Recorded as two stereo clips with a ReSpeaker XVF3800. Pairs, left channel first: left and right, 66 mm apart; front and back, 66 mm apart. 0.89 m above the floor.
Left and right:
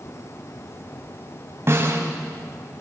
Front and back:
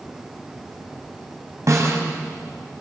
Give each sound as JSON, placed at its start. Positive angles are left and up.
{"t": 1.7, "sound": "a snare drum", "azimuth_deg": -140, "distance_m": 5.5}